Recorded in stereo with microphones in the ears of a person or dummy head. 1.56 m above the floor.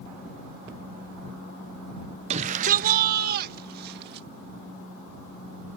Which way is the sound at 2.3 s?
35° right (ahead or behind).